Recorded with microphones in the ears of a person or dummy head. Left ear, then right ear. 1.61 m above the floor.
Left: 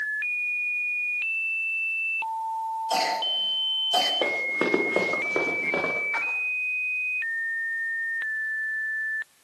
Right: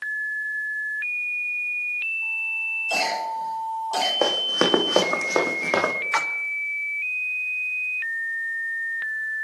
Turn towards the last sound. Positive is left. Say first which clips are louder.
# right 4 dB
turn(degrees=-55)  # may be behind; listen again after turning